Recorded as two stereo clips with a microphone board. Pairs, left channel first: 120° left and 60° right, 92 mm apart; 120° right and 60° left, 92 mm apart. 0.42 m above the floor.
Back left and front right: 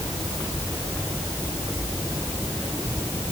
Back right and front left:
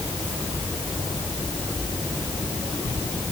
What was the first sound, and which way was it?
Only background noise.